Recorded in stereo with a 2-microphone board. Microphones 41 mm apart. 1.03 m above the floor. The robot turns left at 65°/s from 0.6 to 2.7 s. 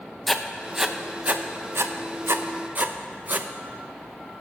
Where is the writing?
Centre (ahead or behind), 0.5 m; by 3.5 s 40° right (ahead or behind), 0.5 m.